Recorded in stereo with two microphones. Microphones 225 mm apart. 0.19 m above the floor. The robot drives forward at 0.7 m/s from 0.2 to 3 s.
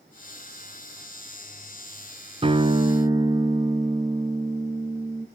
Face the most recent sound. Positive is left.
turn(degrees=-20)  # may be behind; listen again after turning